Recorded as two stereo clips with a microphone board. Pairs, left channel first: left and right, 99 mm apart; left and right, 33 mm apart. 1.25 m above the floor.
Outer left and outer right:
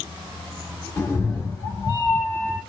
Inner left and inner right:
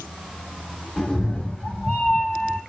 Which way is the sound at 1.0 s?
20° left (ahead or behind).